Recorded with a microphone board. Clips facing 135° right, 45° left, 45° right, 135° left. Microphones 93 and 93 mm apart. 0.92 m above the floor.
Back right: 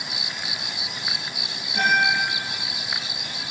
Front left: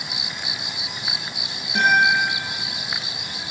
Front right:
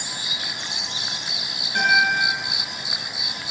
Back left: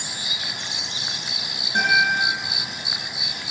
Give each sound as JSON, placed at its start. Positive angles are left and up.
{"t": 1.8, "sound": "a guitar", "azimuth_deg": 65, "distance_m": 3.5}